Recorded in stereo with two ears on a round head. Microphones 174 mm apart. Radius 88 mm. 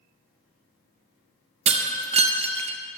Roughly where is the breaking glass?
Right.